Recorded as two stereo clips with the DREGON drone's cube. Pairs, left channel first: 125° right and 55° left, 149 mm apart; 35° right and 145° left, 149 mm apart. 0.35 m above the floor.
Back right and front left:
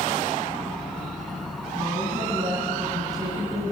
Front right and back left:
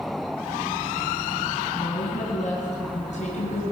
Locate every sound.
1.8 s a woman speaking: 10° right, 3 m